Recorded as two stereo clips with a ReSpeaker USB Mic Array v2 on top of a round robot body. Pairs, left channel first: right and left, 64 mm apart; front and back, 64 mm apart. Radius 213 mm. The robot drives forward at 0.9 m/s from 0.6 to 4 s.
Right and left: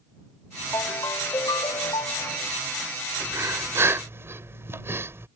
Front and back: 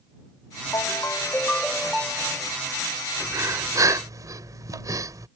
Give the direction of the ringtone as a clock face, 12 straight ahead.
1 o'clock.